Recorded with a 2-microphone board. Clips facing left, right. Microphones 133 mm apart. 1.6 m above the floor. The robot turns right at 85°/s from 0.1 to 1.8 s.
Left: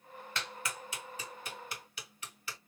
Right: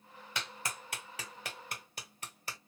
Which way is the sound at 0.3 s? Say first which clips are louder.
Even; 10° right (ahead or behind).